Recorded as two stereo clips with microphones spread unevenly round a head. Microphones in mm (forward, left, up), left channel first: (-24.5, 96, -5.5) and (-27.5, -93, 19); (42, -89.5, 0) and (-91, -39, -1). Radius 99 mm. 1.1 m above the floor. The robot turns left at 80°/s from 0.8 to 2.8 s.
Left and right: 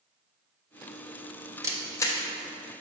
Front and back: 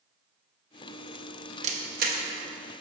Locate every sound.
1.6 s a camera shutter: 165° right, 0.7 m; by 2.2 s 155° left, 0.7 m